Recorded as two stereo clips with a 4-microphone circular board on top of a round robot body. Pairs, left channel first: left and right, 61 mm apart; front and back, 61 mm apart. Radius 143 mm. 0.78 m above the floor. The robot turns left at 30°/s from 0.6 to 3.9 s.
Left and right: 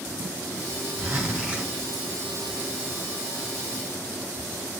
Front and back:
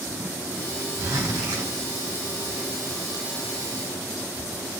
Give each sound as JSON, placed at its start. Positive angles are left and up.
{"t": 1.0, "sound": "a zipper", "azimuth_deg": -150, "distance_m": 1.0}